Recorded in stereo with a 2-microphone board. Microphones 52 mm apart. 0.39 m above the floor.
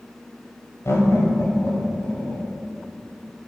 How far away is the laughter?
About 1.5 m.